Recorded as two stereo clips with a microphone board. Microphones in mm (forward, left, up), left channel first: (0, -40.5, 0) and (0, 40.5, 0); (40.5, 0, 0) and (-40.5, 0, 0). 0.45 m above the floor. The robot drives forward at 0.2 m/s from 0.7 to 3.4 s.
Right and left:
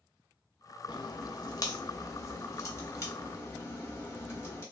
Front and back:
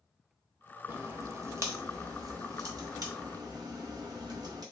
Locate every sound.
0.9 s a crack: 120° right, 0.7 m; by 4.6 s 145° right, 1.0 m